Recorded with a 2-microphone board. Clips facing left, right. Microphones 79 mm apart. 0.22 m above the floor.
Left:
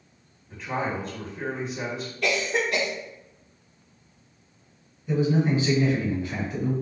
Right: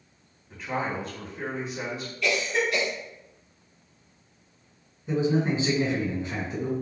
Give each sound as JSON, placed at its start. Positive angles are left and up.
{"t": 0.5, "sound": "a man speaking", "side_deg": 0, "distance_m": 1.7}
{"t": 2.2, "sound": "a cough", "side_deg": 50, "distance_m": 1.8}
{"t": 5.1, "sound": "a man speaking", "side_deg": -25, "distance_m": 1.9}